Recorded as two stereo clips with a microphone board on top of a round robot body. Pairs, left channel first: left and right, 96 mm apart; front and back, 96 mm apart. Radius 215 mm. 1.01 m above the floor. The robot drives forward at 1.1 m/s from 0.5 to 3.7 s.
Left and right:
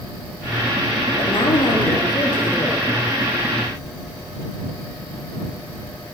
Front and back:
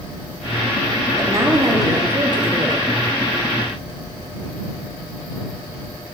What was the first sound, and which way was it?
A woman speaking, 115° left.